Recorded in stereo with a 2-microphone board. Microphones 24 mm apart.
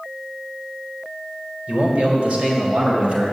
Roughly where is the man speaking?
Right.